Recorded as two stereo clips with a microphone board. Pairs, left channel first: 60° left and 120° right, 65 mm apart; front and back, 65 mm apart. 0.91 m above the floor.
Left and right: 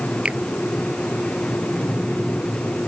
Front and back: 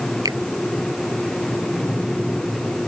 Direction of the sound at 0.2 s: 170° left.